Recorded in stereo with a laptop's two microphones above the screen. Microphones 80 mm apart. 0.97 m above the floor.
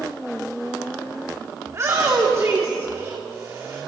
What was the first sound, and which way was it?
A shout, 40° right (ahead or behind).